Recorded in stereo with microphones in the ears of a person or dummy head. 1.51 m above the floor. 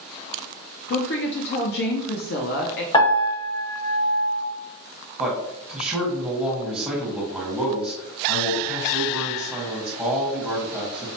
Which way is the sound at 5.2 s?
5° right (ahead or behind).